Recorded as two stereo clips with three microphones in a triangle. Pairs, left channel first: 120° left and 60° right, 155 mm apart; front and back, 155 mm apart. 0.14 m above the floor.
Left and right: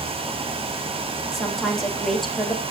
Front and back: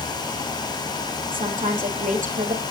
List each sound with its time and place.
1.3 s a woman speaking: 150° right, 3.5 m